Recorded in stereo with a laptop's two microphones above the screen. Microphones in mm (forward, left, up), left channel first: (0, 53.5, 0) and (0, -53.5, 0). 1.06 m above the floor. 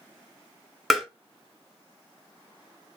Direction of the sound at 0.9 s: Centre (ahead or behind).